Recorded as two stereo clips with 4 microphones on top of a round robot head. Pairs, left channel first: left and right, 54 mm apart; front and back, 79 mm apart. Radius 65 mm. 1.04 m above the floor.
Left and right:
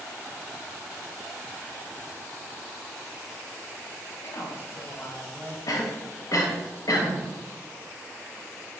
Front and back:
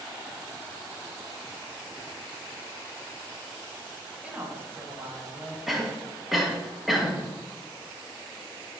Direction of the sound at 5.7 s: 90° left.